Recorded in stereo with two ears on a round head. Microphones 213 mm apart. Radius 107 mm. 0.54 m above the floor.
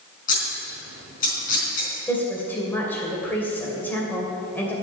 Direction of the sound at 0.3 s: 35° left (ahead or behind).